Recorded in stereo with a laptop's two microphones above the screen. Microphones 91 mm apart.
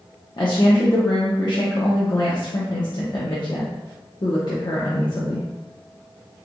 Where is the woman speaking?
55° left (ahead or behind), 0.7 m.